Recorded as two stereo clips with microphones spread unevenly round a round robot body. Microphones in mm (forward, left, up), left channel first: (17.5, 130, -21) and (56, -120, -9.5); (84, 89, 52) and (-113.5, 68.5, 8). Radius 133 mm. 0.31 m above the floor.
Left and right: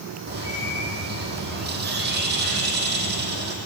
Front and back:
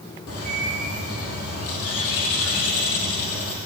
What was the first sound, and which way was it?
A bird, 30° right.